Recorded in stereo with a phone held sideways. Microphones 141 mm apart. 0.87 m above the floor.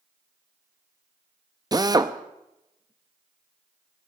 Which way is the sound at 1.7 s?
25° right (ahead or behind).